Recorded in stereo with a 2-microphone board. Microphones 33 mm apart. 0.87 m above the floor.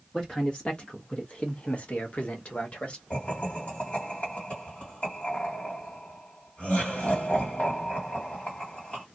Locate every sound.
0.1 s a man speaking: 25° left (ahead or behind), 1.4 m; by 3.0 s 35° left (ahead or behind), 1.2 m
3.1 s laughter: 45° left (ahead or behind), 2 m